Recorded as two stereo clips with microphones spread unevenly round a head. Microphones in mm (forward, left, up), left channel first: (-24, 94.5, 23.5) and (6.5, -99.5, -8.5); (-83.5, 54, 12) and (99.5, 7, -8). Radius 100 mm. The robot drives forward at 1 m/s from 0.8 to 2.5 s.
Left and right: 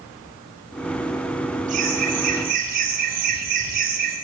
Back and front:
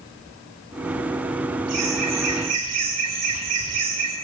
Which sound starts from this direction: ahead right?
Laughter, at 1.7 s.